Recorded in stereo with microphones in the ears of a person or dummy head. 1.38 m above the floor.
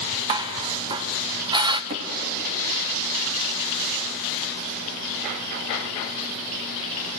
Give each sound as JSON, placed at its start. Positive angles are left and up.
{"t": 0.3, "sound": "dishes clattering", "side_deg": -25, "distance_m": 0.8}
{"t": 1.9, "sound": "hammering", "side_deg": -35, "distance_m": 2.5}